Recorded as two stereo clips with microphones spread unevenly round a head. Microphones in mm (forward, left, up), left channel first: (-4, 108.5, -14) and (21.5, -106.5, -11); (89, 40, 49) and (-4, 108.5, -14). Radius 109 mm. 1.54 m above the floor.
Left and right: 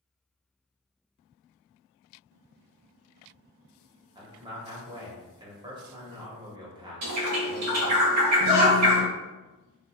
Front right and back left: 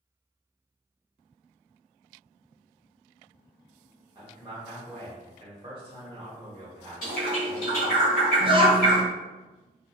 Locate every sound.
4.2 s a man speaking: 155° right, 0.8 m
7.0 s a bird: 70° right, 0.8 m
8.4 s a child speaking: 80° left, 0.7 m